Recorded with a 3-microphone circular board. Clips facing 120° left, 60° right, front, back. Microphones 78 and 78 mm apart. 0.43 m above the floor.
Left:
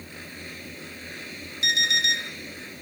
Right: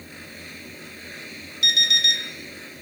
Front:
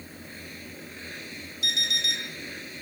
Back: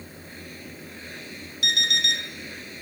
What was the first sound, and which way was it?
An alarm clock, 175° left.